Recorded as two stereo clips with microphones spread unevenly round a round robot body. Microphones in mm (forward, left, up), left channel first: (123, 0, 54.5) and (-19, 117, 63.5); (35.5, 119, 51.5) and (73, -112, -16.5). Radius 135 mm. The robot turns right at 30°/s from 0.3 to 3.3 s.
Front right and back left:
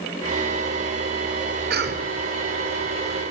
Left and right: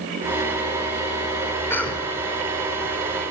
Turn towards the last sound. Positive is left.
turn(degrees=-130)